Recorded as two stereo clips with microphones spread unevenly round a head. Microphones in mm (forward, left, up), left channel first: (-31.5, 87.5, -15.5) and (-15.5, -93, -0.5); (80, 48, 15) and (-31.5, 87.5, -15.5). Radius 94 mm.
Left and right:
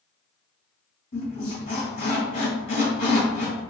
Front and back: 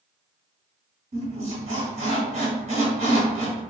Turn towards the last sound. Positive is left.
turn(degrees=145)